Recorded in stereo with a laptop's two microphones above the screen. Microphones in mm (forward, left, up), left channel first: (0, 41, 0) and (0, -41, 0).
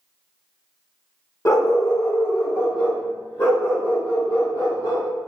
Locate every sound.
1.4 s a dog barking: 40° left (ahead or behind), 0.8 m; by 5.1 s 30° left (ahead or behind), 2 m